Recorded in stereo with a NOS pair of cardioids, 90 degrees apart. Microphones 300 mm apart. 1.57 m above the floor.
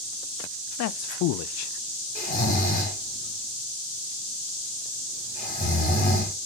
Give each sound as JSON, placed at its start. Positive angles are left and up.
{"t": 0.8, "sound": "a man speaking", "azimuth_deg": 65, "distance_m": 0.5}
{"t": 2.1, "sound": "snoring", "azimuth_deg": 25, "distance_m": 4.0}